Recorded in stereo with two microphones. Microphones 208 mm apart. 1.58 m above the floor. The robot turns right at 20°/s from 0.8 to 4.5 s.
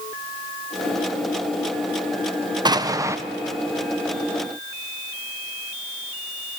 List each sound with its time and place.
2.6 s an explosion: 20° right (ahead or behind), 0.5 m; by 3.2 s 15° right (ahead or behind), 0.5 m